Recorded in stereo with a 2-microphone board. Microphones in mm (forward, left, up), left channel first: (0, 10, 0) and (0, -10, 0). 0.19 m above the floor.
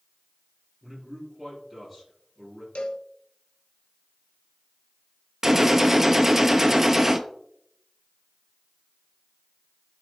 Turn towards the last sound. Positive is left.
turn(degrees=-20)  # may be behind; listen again after turning